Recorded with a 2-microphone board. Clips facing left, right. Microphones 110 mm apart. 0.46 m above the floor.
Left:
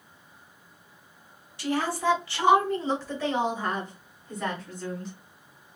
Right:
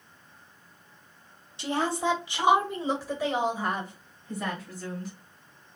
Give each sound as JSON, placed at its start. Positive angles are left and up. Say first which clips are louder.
{"t": 1.6, "sound": "a woman speaking", "louder": "left 1 dB", "side_deg": -25, "distance_m": 0.9}